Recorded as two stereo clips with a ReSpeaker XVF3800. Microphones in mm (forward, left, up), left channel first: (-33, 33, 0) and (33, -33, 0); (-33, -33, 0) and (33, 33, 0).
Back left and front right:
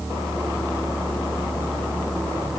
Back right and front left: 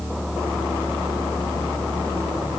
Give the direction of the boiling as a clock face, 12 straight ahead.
I don't hear boiling.